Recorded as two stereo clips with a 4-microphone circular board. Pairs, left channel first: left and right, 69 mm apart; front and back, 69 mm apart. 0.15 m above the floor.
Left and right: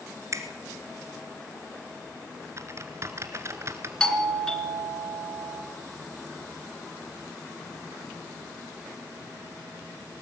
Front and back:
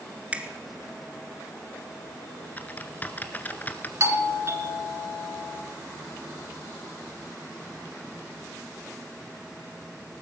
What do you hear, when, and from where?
0.3 s a finger snap: 115° right, 1.8 m
2.6 s typing on a keyboard: 60° right, 1.5 m
4.0 s a doorbell: 165° left, 2.5 m